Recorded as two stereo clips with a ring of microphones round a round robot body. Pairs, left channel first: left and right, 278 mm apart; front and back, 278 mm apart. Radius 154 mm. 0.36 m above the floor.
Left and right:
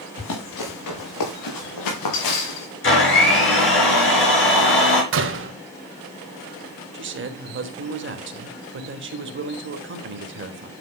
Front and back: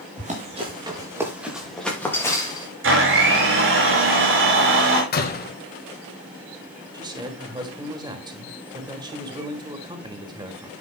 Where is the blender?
135° left, 5 m.